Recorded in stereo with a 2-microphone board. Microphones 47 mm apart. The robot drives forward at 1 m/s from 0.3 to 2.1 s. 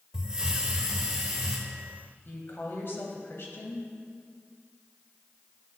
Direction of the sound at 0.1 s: 15° right (ahead or behind).